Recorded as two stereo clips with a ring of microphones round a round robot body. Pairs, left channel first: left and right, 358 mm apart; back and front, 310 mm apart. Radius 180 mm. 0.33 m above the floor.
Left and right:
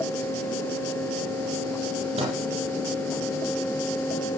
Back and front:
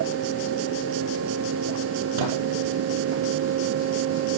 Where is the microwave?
15° right, 8.5 m.